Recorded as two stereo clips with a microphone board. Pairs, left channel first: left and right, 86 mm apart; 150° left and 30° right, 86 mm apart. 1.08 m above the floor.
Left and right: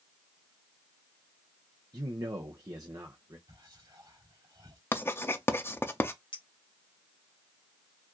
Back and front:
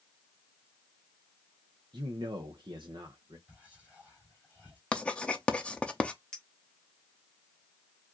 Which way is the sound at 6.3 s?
70° left.